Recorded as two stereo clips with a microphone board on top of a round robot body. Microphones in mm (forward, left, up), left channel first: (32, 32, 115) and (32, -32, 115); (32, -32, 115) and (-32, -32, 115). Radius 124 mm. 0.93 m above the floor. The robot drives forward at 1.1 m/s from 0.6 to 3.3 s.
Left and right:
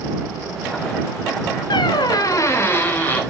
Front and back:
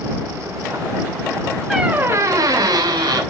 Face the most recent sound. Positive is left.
turn(degrees=160)